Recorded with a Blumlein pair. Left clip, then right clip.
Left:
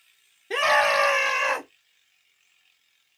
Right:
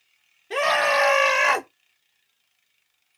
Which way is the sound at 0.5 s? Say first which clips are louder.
Even; 15° left.